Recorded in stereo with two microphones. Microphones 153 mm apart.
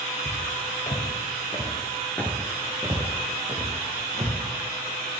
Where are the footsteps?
60° left (ahead or behind), 2.5 m; by 4.4 s 50° right (ahead or behind), 2.5 m.